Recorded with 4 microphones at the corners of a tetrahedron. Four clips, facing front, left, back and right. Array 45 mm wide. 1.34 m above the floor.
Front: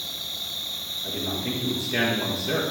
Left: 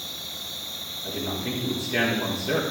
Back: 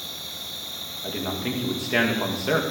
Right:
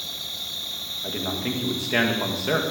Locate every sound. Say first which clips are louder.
0.0 s an insect: right 3 dB, front 3 dB; 55° right, 1.6 m
1.0 s a man speaking: right 2 dB, back 2 dB; 135° right, 1.9 m